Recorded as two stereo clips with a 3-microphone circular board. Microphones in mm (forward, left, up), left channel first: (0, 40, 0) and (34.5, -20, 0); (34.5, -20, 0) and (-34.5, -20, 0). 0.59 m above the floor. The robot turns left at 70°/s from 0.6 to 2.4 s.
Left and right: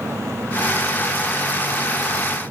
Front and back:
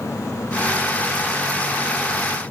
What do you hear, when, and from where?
Only background noise.